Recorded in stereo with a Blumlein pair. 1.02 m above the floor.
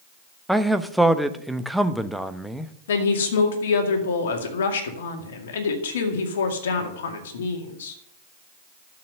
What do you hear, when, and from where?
0.5 s a man speaking: straight ahead, 0.9 m
2.9 s a woman speaking: 60° left, 2 m